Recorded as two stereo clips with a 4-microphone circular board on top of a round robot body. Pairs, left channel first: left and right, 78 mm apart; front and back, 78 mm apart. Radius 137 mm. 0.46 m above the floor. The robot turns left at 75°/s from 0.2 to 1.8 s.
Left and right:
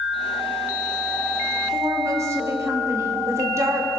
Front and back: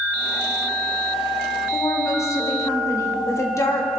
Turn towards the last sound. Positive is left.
turn(degrees=-45)